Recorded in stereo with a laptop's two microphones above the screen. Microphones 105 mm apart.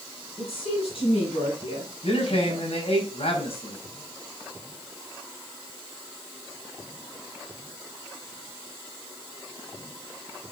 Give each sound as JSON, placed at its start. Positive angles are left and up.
{"t": 0.4, "sound": "a woman speaking", "side_deg": 65, "distance_m": 9.0}
{"t": 2.0, "sound": "a man speaking", "side_deg": 75, "distance_m": 5.5}